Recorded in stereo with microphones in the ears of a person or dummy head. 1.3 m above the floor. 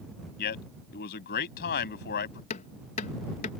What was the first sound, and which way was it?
A man speaking, 55° left (ahead or behind).